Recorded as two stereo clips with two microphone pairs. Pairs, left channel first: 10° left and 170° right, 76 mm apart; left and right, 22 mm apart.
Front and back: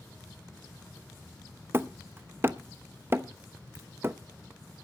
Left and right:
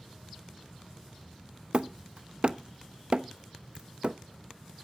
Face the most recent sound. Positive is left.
turn(degrees=-115)